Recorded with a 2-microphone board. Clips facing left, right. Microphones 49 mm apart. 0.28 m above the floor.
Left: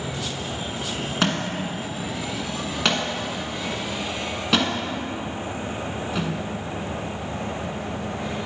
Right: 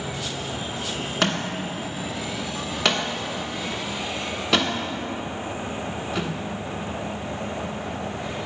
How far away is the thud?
About 1.0 m.